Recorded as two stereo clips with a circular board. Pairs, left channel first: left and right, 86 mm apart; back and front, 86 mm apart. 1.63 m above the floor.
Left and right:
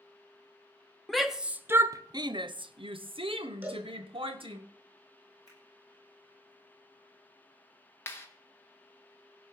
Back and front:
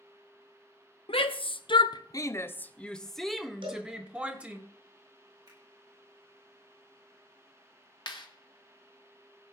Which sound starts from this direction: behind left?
A clap, at 8.1 s.